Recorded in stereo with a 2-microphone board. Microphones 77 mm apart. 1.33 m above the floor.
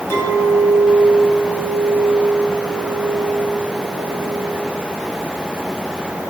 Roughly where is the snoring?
No snoring in this recording.